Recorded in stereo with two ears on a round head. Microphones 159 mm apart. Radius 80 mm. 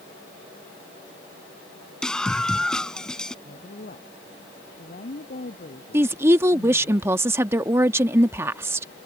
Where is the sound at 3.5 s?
50° left (ahead or behind).